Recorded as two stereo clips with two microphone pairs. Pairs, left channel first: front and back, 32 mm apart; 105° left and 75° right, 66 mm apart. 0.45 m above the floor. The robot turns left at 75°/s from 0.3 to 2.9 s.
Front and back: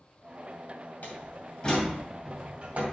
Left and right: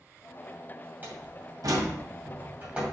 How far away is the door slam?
About 2.5 m.